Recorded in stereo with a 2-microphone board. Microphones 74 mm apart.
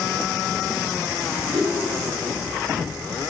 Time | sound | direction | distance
1.5 | a whoosh | 65° right (ahead or behind) | 3 m